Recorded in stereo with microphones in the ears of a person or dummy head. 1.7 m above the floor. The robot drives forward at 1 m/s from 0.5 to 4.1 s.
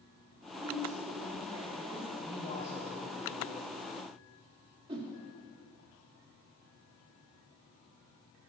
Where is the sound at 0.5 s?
20° right (ahead or behind), 4 m; by 2.1 s 30° right (ahead or behind), 2.5 m.